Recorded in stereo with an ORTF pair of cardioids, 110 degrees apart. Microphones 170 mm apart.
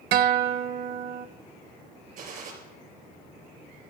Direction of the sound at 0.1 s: 65° right.